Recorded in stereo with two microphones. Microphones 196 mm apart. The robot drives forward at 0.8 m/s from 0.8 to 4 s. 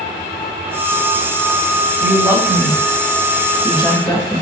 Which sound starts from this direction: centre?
A woman speaking, at 2.0 s.